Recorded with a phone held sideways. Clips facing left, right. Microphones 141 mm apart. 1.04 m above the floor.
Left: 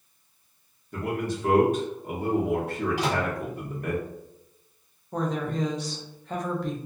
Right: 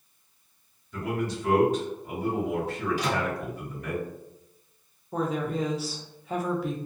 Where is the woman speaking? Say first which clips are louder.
Even; 5° right (ahead or behind), 0.5 m.